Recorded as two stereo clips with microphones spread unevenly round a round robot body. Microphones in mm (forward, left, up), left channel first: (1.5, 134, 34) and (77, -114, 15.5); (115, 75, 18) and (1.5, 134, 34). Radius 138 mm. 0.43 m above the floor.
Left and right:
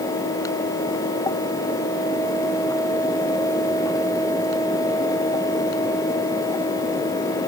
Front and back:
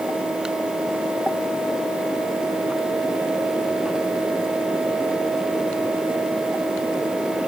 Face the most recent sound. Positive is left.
No sound to turn to.